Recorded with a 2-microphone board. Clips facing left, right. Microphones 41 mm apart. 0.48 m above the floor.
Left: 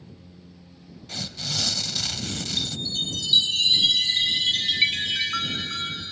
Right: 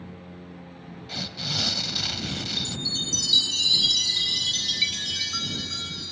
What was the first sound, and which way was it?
A lawn mower, 45° right (ahead or behind).